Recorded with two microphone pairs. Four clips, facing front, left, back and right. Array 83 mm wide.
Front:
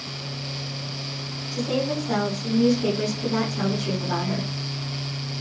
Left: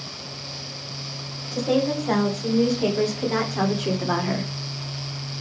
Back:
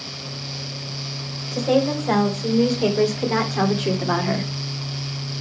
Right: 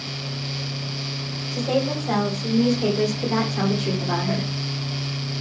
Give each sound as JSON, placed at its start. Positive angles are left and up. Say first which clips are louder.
{"t": 1.5, "sound": "a woman speaking", "louder": "left 1 dB, back 6 dB", "azimuth_deg": 160, "distance_m": 3.0}